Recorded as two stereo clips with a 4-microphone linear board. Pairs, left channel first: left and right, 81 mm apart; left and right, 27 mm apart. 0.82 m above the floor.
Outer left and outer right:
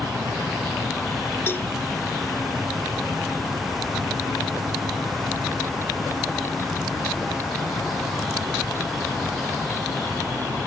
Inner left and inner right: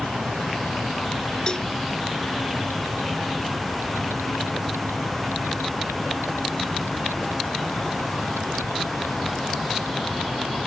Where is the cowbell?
30° left (ahead or behind).